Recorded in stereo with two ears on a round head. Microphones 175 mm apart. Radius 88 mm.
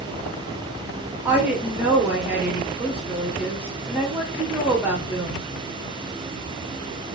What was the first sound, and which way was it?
A woman speaking, 10° right (ahead or behind).